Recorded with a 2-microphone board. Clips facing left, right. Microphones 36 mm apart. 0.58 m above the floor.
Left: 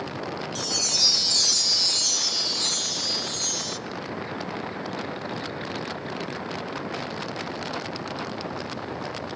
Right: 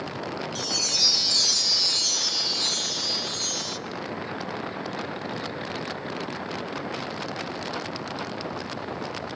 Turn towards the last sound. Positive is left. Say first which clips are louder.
# even
turn(degrees=-5)  # may be behind; listen again after turning